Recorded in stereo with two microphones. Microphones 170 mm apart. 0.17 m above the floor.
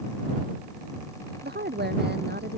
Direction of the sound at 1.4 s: 75° right (ahead or behind).